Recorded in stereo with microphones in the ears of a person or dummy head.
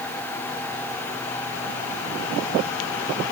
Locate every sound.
Only background noise.